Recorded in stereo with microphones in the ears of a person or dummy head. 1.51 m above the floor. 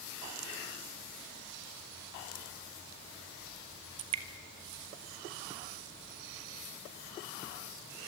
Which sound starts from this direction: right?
Dripping, at 4.0 s.